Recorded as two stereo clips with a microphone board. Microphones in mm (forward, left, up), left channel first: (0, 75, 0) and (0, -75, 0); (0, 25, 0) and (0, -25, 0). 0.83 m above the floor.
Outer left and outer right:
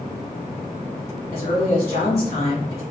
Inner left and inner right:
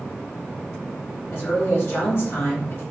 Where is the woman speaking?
45° left (ahead or behind), 0.9 m.